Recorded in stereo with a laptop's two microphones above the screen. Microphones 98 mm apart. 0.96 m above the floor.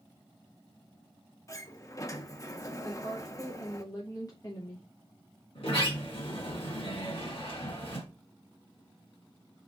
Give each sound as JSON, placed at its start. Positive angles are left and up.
{"t": 1.5, "sound": "a sliding door", "side_deg": 35, "distance_m": 0.5}
{"t": 2.8, "sound": "a woman speaking", "side_deg": 40, "distance_m": 0.7}
{"t": 5.5, "sound": "a sliding door", "side_deg": 70, "distance_m": 1.8}